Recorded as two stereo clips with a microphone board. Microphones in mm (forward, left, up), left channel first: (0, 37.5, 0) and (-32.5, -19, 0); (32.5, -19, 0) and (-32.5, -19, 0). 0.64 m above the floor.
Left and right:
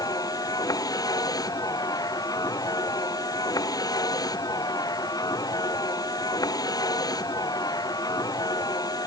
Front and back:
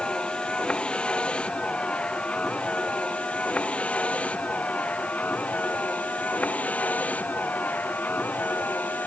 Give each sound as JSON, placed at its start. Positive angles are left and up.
{"t": 0.0, "sound": "a vehicle", "azimuth_deg": 75}